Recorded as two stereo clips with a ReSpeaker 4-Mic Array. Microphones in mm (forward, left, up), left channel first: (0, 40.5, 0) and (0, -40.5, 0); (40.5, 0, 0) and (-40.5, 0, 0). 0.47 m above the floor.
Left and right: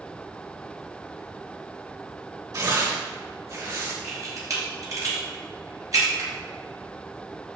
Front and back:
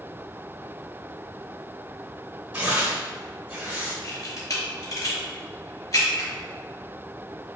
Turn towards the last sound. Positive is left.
turn(degrees=-45)